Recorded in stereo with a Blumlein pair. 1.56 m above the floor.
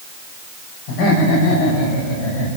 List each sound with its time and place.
0.9 s laughter: 40° left, 6 m; by 2.5 s 50° left, 7 m